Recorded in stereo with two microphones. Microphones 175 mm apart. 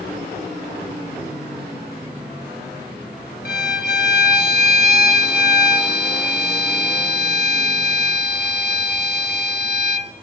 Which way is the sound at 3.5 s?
65° left (ahead or behind).